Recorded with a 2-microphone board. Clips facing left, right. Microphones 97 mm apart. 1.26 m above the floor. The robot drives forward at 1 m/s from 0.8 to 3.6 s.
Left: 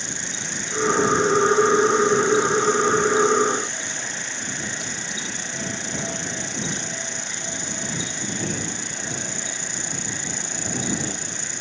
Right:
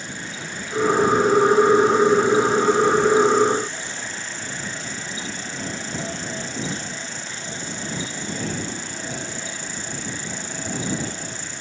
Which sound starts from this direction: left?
An insect, at 0.0 s.